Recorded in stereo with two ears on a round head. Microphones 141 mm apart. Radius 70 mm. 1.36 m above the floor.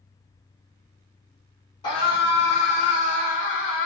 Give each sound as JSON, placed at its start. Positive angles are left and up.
{"t": 1.8, "sound": "a scream", "side_deg": 30, "distance_m": 2.5}